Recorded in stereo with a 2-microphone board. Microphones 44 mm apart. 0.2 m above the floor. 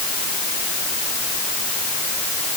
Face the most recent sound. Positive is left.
No sound to turn to.